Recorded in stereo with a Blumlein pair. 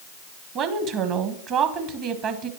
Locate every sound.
0.6 s a woman speaking: 35° right, 1.2 m